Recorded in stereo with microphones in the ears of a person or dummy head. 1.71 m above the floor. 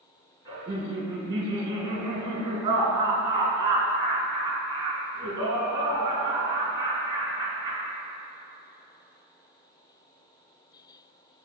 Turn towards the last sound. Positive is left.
turn(degrees=-20)  # may be behind; listen again after turning